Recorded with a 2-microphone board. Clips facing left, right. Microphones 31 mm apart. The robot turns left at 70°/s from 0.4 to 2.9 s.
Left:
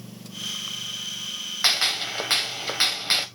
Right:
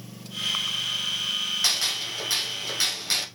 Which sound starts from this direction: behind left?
A gunshot, at 1.6 s.